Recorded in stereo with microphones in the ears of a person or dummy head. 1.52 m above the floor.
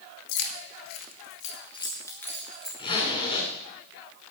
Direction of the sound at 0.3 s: 75° left (ahead or behind).